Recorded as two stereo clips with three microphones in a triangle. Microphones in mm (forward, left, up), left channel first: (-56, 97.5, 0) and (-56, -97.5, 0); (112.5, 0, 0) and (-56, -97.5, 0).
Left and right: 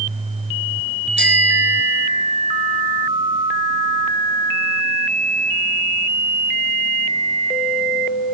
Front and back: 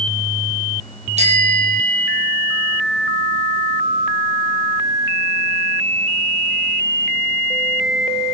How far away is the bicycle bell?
About 4 m.